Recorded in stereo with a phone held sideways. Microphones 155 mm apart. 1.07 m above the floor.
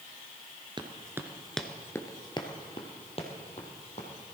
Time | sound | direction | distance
0.8 | running footsteps | 30° right (ahead or behind) | 1.2 m